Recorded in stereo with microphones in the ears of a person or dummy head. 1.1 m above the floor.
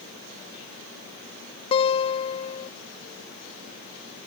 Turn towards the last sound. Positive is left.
turn(degrees=30)  # may be behind; listen again after turning